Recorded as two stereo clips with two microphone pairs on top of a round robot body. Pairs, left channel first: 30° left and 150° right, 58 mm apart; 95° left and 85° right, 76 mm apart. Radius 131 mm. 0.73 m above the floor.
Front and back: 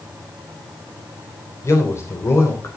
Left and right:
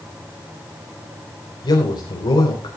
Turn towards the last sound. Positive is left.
turn(degrees=65)